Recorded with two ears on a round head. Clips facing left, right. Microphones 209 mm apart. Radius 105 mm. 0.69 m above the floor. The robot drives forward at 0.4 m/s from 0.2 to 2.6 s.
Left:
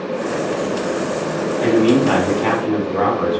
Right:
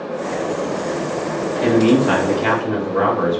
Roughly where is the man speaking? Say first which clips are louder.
Even; centre.